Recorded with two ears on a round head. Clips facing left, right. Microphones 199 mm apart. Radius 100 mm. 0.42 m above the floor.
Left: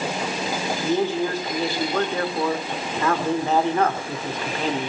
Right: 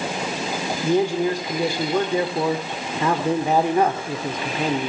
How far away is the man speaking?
About 0.8 m.